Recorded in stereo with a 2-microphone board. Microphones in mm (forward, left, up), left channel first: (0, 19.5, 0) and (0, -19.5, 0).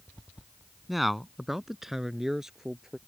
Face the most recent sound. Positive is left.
turn(degrees=-15)  # may be behind; listen again after turning